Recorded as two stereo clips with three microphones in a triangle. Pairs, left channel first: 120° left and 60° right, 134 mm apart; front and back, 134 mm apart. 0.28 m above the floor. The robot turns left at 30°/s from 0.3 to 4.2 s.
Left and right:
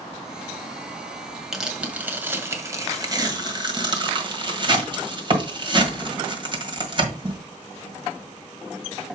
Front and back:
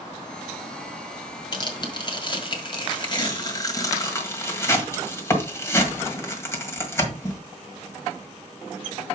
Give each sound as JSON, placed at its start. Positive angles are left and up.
{"t": 1.5, "sound": "tearing paper", "azimuth_deg": 25, "distance_m": 1.7}